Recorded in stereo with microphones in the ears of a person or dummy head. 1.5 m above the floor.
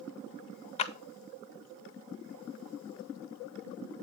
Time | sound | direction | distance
0.8 | a clap | 35° left (ahead or behind) | 0.5 m